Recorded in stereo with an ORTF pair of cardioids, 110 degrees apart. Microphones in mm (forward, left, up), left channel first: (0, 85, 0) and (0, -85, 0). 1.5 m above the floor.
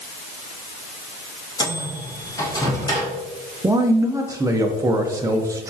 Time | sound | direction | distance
1.6 | a microwave | 25° left | 1.7 m
3.6 | a man speaking | 20° right | 0.6 m